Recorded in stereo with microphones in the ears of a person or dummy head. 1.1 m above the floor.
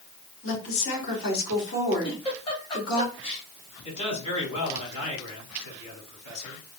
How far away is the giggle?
About 1.1 m.